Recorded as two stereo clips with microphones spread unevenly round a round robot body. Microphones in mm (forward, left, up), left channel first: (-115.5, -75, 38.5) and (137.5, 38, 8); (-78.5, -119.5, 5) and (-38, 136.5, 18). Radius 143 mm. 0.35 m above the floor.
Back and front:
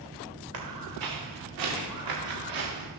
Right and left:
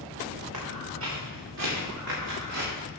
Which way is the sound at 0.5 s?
35° left.